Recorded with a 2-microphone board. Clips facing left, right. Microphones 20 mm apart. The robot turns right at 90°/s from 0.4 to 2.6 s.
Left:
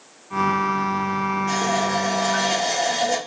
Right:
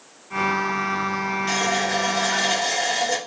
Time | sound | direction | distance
1.5 | a running tap | 120° right | 1.4 m